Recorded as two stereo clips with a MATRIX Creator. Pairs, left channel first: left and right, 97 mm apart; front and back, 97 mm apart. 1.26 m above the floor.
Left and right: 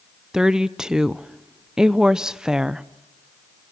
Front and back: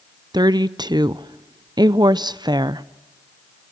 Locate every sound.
0.3 s a woman speaking: 170° right, 0.6 m